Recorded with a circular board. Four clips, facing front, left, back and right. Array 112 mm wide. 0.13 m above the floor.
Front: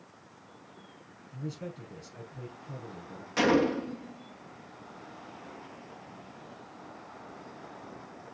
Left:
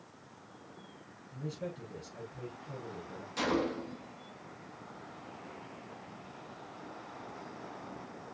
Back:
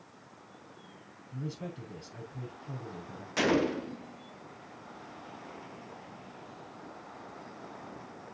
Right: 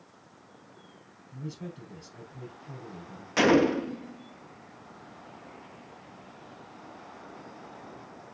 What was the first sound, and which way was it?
A man speaking, 155° right.